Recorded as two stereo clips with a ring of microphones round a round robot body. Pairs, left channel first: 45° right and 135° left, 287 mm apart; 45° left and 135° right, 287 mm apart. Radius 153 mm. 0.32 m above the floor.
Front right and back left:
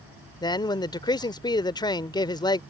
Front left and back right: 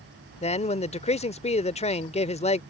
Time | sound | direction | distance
0.4 | a man speaking | 10° left | ?